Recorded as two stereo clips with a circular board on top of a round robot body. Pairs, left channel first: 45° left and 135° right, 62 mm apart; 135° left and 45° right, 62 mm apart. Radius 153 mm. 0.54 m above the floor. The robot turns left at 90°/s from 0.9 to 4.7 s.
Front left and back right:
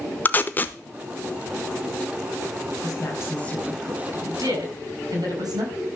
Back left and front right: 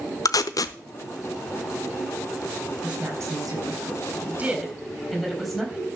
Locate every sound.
0.2 s tape being pulled: 105° left, 0.7 m
2.8 s a woman speaking: 30° left, 5 m; by 5.9 s 140° right, 5 m